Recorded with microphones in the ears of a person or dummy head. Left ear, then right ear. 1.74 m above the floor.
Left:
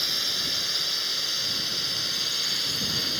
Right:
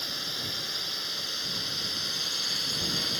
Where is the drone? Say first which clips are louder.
Left 6 dB; 20° left (ahead or behind); by 3.2 s 5° left (ahead or behind).